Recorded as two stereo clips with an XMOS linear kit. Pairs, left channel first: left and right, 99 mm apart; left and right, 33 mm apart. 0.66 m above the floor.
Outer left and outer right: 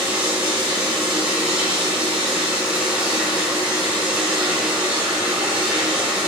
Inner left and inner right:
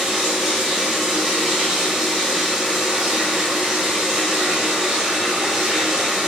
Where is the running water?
10° right (ahead or behind), 5.5 m.